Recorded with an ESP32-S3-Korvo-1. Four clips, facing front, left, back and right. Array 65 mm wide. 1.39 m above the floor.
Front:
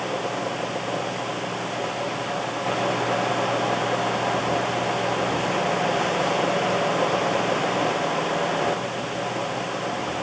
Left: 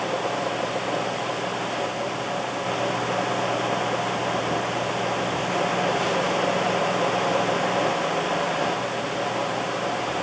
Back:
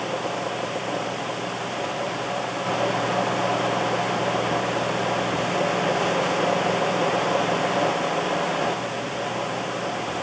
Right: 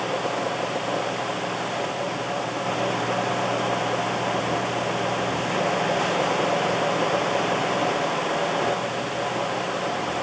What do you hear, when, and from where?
Only background noise.